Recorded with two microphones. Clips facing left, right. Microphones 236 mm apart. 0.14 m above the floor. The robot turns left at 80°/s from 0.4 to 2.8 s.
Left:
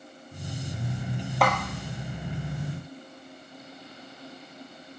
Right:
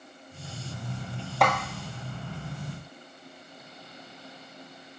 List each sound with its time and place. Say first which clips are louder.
1.4 s a snare drum: even; centre (ahead or behind), 0.7 m; by 1.5 s 10° left (ahead or behind), 0.7 m